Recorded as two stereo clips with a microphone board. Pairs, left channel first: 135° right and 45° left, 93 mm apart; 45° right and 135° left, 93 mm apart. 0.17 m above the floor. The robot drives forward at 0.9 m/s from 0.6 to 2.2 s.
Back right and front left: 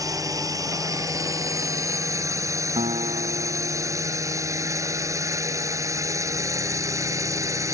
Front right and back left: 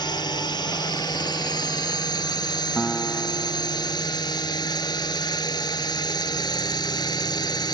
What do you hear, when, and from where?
0.0 s a drone: 5° right
2.8 s a guitar: 35° left